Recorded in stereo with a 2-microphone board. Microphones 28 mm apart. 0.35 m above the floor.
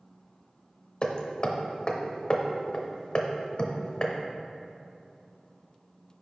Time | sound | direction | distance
1.0 | hammering | 35° left (ahead or behind) | 0.6 m